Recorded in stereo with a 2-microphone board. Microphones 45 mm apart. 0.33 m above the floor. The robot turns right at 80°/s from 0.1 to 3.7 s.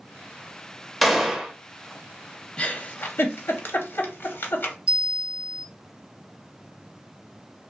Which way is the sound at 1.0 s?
Centre (ahead or behind).